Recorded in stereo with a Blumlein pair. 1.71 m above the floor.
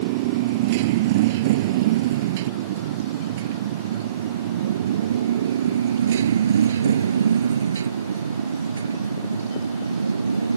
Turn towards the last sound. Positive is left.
turn(degrees=-80)